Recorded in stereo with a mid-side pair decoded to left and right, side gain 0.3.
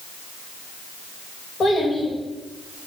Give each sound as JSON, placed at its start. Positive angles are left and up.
{"t": 1.6, "sound": "a child speaking", "azimuth_deg": 65, "distance_m": 2.0}